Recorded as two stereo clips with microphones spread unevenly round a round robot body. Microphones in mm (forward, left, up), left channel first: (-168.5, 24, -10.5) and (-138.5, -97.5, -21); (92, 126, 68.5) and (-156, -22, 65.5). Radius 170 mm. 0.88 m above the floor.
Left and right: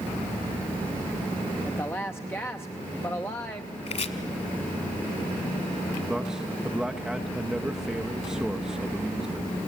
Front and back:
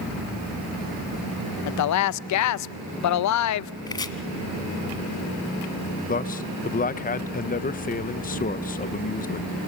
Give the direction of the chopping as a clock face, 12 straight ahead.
9 o'clock.